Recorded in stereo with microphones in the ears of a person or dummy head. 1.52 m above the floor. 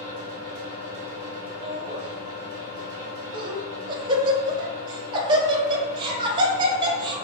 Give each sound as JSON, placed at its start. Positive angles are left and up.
{"t": 0.0, "sound": "a fan", "side_deg": -40, "distance_m": 1.5}
{"t": 1.6, "sound": "laughter", "side_deg": -30, "distance_m": 1.0}